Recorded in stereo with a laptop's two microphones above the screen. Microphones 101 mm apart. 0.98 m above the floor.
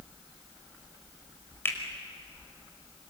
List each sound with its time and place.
1.6 s a finger snap: 25° left (ahead or behind), 5 m